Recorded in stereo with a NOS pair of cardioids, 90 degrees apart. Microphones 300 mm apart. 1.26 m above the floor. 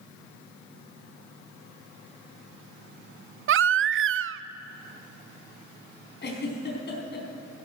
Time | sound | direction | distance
3.5 | a baby crying | 45° right | 0.5 m
6.2 | a giggle | 35° left | 4 m